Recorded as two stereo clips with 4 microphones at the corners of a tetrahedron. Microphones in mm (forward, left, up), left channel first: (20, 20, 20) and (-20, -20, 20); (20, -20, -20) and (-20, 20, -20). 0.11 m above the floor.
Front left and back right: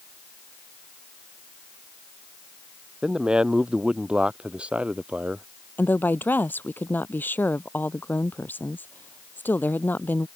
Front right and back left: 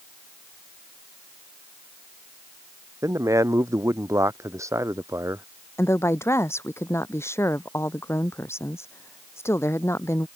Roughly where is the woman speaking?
Ahead.